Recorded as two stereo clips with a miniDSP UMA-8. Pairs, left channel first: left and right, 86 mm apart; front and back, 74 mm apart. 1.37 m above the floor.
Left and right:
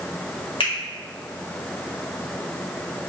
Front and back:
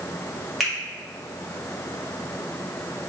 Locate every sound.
0.6 s a finger snap: 90° left, 1.6 m